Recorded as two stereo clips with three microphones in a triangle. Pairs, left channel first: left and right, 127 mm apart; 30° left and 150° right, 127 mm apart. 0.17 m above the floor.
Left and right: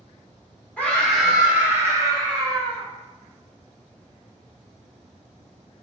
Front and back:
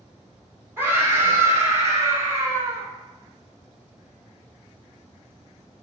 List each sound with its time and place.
0.8 s a scream: 155° left, 1.1 m; by 2.9 s 95° right, 1.4 m